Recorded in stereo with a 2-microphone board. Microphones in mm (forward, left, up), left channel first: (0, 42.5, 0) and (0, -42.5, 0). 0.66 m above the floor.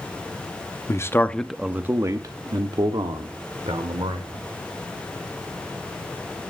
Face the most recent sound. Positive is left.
turn(degrees=-75)  # may be behind; listen again after turning